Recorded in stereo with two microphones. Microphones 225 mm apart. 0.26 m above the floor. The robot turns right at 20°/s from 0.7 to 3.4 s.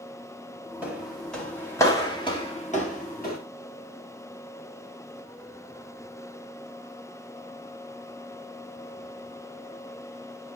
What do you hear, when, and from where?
0.8 s footsteps: 5° right (ahead or behind), 4 m; by 3.4 s 45° left (ahead or behind), 5.5 m